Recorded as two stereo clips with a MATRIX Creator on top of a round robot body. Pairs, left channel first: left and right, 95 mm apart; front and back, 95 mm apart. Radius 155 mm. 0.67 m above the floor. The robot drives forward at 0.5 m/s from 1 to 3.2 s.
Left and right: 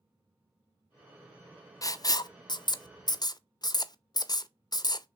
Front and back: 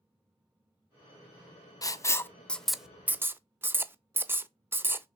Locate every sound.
1.8 s writing: 45° left, 0.8 m; by 5.1 s 120° left, 0.7 m